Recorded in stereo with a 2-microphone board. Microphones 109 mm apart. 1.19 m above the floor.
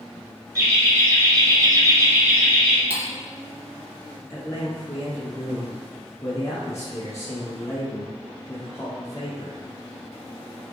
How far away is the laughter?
About 1.8 m.